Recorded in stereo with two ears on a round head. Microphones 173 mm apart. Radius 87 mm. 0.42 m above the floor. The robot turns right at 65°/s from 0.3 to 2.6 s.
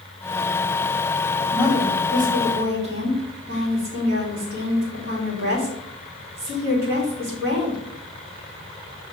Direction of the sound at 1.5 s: 175° right.